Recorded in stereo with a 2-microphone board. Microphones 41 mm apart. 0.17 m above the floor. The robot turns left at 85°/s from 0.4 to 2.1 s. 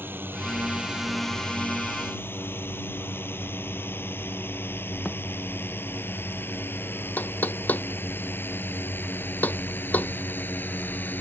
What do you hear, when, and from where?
0.0 s a drone: 65° right (ahead or behind); by 11.2 s 55° left (ahead or behind)
5.0 s a thud: 20° left (ahead or behind)
7.2 s knocking: 50° left (ahead or behind)